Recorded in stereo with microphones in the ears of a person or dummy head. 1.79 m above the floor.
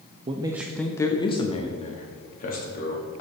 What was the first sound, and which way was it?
A man speaking, 30° right (ahead or behind).